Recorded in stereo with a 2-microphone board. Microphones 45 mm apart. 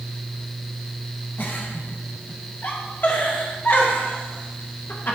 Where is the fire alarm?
I don't hear a fire alarm.